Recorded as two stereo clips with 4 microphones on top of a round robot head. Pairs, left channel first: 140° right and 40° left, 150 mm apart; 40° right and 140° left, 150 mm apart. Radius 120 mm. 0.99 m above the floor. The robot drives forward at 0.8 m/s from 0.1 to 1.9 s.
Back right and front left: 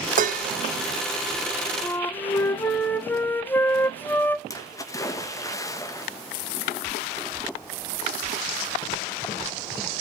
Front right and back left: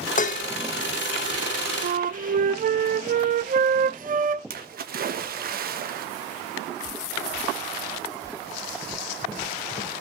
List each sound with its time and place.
0.2 s dishes clattering: straight ahead, 0.7 m
1.8 s a flute: 140° left, 0.8 m; by 4.4 s 145° left, 0.9 m
4.5 s a splash: 150° left, 1.5 m